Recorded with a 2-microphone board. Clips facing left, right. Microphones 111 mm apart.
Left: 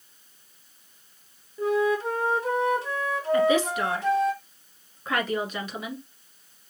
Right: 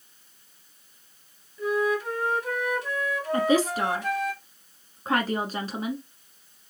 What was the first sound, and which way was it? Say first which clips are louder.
A flute: left 2 dB; 30° left (ahead or behind).